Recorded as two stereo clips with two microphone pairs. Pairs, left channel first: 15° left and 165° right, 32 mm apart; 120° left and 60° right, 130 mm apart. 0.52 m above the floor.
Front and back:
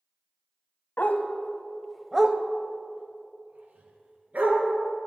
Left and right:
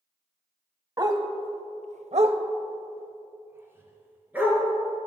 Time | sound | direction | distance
1.0 | a dog barking | 5° right | 0.8 m